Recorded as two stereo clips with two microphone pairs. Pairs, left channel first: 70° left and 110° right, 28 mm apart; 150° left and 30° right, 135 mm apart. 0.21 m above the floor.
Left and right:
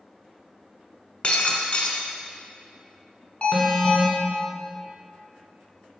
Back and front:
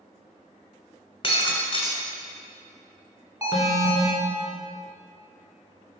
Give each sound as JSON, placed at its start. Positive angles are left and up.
{"t": 1.2, "sound": "breaking glass", "azimuth_deg": 110, "distance_m": 0.9}
{"t": 3.4, "sound": "an alarm", "azimuth_deg": 30, "distance_m": 1.5}